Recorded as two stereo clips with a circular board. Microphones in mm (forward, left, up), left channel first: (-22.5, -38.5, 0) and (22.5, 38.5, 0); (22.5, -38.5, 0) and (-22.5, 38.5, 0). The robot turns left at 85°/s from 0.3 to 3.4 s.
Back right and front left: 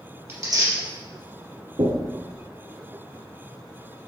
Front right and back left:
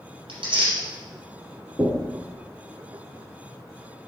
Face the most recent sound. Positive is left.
turn(degrees=-100)